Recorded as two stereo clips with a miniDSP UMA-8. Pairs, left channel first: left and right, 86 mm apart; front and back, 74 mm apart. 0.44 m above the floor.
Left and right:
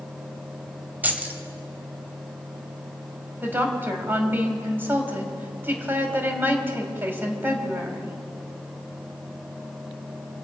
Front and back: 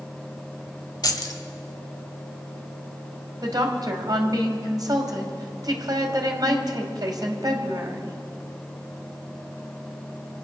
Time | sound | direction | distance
1.0 | keys jangling | 20° right | 1.4 m
3.4 | a woman speaking | 155° right | 2.5 m